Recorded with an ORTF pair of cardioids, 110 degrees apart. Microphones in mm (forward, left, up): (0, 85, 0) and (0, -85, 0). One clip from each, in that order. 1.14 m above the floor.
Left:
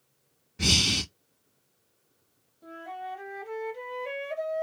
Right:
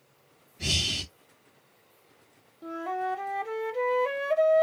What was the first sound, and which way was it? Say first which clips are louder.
Breathing: left 4 dB; 70° left.